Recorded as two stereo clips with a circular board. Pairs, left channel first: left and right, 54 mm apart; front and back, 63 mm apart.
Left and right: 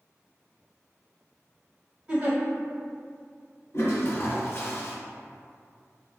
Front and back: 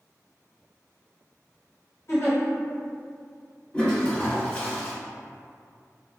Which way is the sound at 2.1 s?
35° right.